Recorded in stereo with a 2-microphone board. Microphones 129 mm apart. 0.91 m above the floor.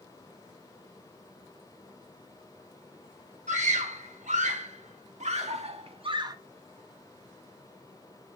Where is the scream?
75° right (ahead or behind), 4 m; by 6.4 s 25° right (ahead or behind), 1.1 m.